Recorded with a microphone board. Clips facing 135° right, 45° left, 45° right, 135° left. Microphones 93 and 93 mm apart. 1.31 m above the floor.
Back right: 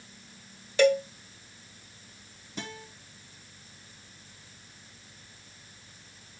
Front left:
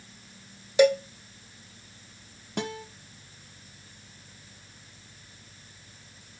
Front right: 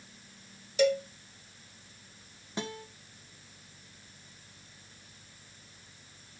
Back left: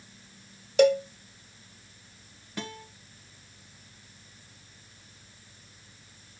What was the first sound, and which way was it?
A cowbell, 115° left.